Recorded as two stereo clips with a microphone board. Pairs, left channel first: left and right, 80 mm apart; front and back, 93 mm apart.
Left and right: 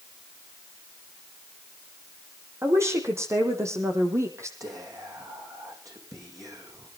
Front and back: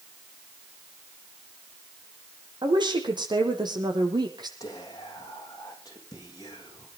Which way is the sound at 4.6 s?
45° right.